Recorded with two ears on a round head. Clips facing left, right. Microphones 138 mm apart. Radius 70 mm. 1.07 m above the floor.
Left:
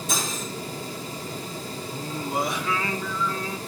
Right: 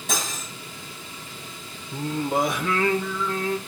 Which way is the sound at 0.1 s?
50° right (ahead or behind).